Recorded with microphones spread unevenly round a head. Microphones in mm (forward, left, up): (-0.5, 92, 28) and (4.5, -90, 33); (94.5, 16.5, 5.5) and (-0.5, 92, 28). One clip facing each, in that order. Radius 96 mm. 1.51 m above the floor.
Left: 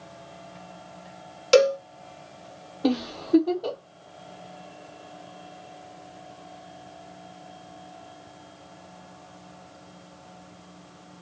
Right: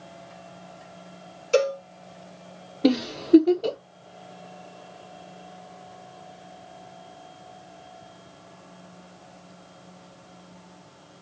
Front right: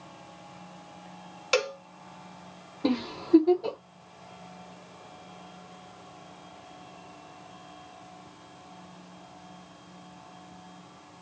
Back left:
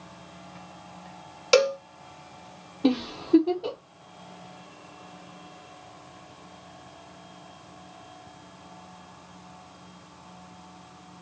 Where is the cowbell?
85° left, 1.4 m.